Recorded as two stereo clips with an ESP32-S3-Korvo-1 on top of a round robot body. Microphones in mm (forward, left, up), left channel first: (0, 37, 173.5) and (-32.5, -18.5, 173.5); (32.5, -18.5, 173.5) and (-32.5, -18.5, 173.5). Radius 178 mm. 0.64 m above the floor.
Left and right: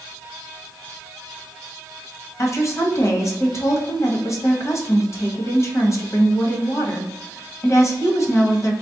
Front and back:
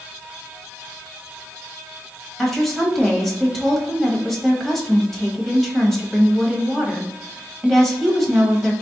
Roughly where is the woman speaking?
Left.